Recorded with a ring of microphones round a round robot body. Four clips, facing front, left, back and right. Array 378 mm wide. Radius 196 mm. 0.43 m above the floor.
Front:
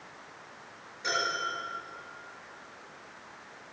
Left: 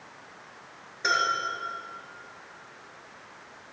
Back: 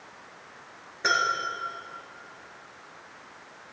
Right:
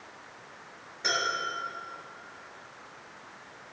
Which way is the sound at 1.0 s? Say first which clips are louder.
Left 5 dB, back 6 dB; 165° left.